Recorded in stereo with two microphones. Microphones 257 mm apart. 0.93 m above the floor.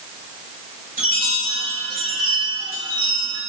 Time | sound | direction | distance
1.0 | a chime | 35° right (ahead or behind) | 3.5 m